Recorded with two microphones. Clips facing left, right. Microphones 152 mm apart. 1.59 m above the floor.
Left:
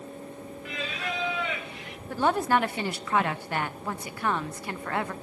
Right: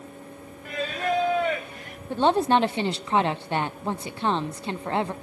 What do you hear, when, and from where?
0.7 s singing: 45° right (ahead or behind), 1.1 m
2.1 s a woman speaking: 25° right (ahead or behind), 0.8 m